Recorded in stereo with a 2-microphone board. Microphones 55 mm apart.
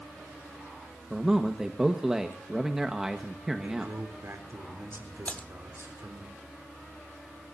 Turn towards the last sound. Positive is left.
turn(degrees=30)  # may be behind; listen again after turning